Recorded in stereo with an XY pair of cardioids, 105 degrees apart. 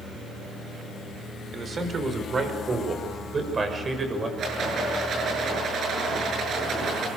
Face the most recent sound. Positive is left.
turn(degrees=-55)